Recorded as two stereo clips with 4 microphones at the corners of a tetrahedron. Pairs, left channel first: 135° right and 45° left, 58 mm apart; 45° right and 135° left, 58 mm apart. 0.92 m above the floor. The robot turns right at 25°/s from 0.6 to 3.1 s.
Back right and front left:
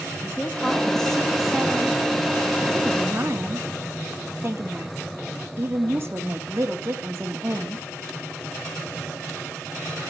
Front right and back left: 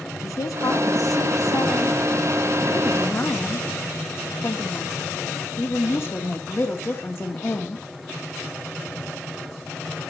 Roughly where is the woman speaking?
Ahead right.